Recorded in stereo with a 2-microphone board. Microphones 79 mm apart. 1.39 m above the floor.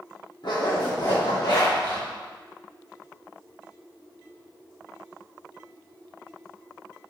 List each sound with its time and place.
0.4 s a zipper: 60° left (ahead or behind), 2.0 m